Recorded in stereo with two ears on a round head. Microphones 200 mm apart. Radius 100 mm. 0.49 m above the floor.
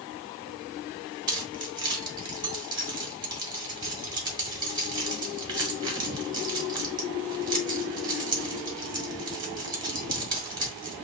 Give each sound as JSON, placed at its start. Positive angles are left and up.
{"t": 1.3, "sound": "keys jangling", "side_deg": -20, "distance_m": 1.1}